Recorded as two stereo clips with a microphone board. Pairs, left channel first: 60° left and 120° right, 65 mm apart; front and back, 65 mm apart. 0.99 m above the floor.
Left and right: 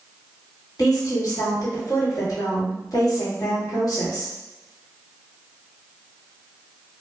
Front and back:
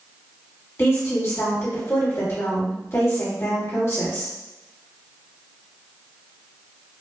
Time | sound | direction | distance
0.8 | a woman speaking | 45° left | 1.5 m